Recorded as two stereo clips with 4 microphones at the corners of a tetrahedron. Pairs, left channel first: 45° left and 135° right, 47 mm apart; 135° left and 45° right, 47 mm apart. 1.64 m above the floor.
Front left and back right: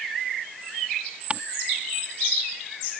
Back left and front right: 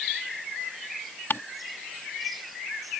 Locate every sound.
1.3 s ticking: 165° left